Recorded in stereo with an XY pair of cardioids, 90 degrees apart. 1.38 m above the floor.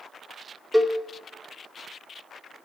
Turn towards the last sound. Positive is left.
turn(degrees=0)